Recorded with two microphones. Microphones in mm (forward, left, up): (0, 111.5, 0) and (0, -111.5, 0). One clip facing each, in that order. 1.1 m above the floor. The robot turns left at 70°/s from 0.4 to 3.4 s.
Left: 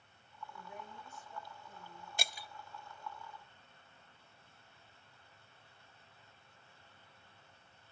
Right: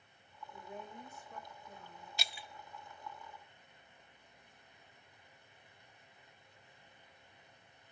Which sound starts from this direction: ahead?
A woman speaking, at 0.5 s.